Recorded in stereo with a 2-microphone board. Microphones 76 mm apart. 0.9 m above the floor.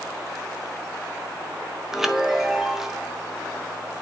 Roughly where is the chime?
Centre.